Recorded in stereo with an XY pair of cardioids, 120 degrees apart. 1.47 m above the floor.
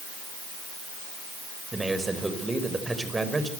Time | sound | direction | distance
1.7 | a man speaking | 15° right | 5.5 m